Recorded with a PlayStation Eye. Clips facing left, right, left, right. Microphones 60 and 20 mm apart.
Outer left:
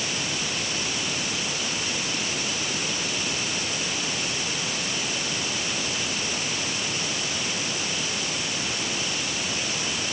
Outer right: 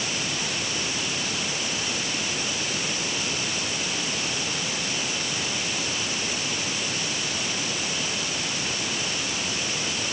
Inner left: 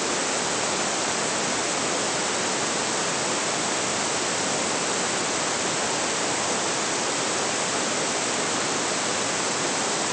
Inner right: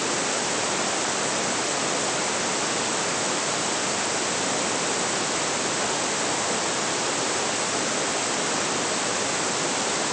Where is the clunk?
No clunk in this recording.